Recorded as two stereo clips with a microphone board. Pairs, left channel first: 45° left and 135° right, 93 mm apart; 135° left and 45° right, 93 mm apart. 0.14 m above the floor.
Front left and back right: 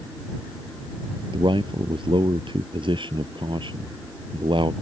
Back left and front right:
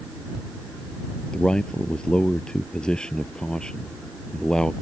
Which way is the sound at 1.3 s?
145° right.